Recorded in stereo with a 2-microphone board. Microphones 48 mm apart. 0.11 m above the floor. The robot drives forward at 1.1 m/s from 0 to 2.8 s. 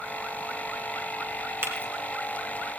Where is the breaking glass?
50° right (ahead or behind), 4 m.